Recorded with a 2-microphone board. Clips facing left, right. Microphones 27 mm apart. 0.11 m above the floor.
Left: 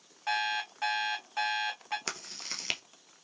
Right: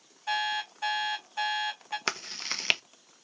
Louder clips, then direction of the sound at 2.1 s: Right 6 dB; 30° right (ahead or behind).